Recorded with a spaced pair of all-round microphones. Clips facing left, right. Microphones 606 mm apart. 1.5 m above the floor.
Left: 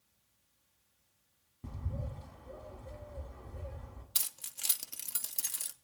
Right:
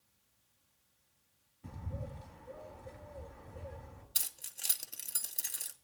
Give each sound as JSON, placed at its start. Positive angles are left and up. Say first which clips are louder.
{"t": 1.6, "sound": "a bird", "louder": "left 1 dB", "side_deg": 60, "distance_m": 2.5}
{"t": 4.2, "sound": "keys jangling", "louder": "even", "side_deg": 35, "distance_m": 0.5}